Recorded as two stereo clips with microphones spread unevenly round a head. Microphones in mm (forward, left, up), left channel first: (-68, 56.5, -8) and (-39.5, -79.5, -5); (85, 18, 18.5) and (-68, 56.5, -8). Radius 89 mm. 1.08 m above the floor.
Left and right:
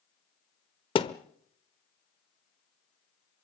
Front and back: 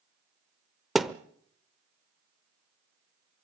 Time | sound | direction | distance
0.9 | a thud | 65° left | 0.9 m